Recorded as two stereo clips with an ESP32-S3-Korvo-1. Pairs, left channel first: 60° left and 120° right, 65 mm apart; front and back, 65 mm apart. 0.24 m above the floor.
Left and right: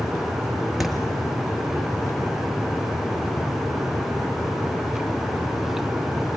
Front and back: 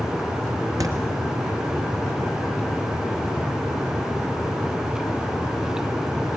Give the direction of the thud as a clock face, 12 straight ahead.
7 o'clock.